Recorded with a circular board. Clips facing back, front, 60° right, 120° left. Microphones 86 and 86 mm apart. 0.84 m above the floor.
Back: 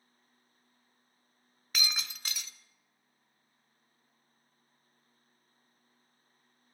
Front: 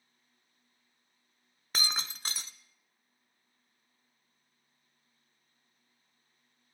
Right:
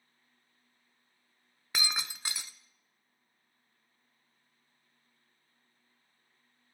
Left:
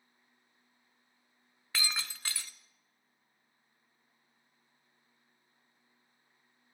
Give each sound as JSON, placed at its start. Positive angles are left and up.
{"t": 1.7, "sound": "breaking glass", "azimuth_deg": 0, "distance_m": 0.9}